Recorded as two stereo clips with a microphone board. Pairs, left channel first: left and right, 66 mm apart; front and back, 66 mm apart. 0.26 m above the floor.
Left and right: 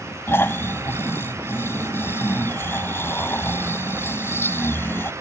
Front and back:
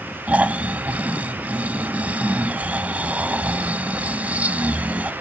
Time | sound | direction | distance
0.3 | snoring | 120° left | ?